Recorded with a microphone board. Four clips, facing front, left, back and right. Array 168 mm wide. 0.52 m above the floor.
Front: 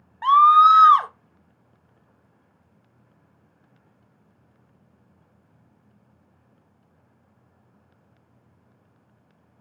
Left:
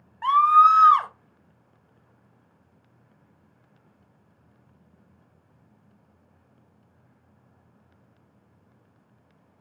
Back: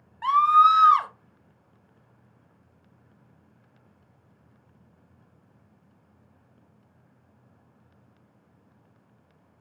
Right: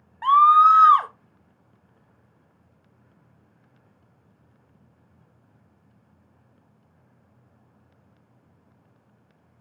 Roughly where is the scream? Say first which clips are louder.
Right 2 dB, front 5 dB; ahead.